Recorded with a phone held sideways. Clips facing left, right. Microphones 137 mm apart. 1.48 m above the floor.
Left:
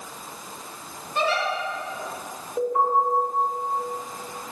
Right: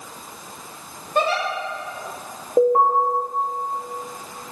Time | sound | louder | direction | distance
1.1 | a giggle | right 3 dB | 55° right (ahead or behind) | 1.9 m
2.6 | an alarm | right 7 dB | 60° right (ahead or behind) | 1.6 m